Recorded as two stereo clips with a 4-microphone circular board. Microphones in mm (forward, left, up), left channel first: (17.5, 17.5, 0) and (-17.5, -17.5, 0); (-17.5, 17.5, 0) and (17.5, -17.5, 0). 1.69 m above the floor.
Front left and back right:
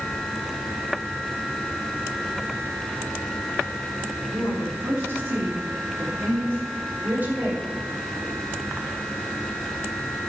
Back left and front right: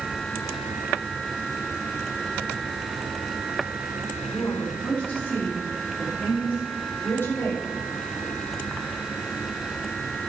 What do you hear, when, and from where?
4.3 s a woman speaking: 160° right, 5 m; by 7.7 s 175° left, 4 m